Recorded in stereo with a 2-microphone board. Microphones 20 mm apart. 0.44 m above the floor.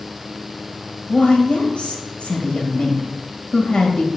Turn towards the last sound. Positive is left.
turn(degrees=60)  # may be behind; listen again after turning